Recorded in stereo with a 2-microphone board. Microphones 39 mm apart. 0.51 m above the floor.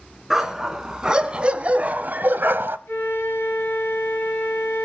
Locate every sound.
0.3 s a dog barking: 15° right (ahead or behind), 2.5 m; by 2.8 s 90° right, 1.1 m
2.9 s a flute: 85° left, 5.5 m